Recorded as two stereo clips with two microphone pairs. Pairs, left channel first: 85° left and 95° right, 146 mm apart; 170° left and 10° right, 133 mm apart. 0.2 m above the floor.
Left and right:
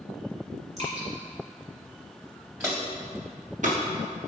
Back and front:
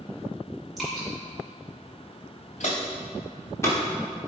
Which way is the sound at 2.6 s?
170° right.